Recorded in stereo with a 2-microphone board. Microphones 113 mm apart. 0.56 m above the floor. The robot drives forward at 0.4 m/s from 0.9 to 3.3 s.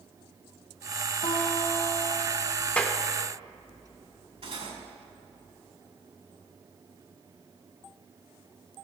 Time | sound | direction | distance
1.2 | a guitar | 75° left (ahead or behind) | 1.7 m
2.8 | a clap | 10° left (ahead or behind) | 0.9 m
4.4 | cutlery clinking | 65° right (ahead or behind) | 2 m